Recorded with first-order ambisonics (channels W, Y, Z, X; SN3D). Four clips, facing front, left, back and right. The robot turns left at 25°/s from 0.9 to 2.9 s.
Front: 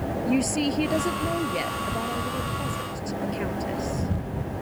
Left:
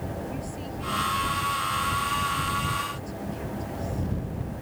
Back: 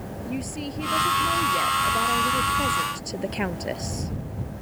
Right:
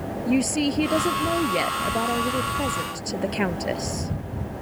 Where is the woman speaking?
65° right; by 4.1 s 115° right.